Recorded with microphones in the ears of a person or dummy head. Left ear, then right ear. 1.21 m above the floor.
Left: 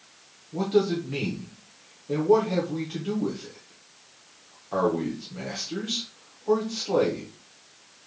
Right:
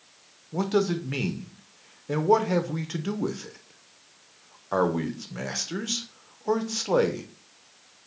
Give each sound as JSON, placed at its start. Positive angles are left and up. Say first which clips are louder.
{"t": 0.5, "sound": "a man speaking", "louder": "left 2 dB", "side_deg": -50, "distance_m": 0.5}